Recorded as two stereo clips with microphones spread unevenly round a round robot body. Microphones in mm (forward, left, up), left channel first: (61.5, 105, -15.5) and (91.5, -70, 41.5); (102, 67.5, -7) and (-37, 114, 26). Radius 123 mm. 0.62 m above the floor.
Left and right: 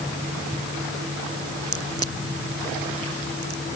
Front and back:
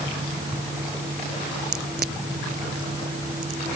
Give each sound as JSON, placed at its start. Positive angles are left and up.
{"t": 1.7, "sound": "a crack", "azimuth_deg": -150}